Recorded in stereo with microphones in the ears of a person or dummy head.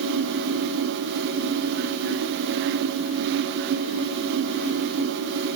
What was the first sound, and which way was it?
Only background noise.